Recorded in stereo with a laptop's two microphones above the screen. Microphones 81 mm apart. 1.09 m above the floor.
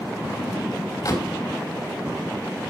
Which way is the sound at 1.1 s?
45° left (ahead or behind).